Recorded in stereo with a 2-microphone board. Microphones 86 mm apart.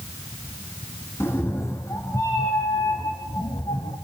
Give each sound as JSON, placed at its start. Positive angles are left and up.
{"t": 1.2, "sound": "a cat meowing", "side_deg": 30, "distance_m": 2.5}